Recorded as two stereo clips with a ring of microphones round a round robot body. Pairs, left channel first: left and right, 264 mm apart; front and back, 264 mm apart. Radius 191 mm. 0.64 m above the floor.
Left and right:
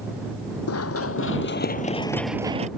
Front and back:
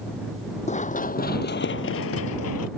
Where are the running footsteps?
65° left; by 2.7 s 30° right.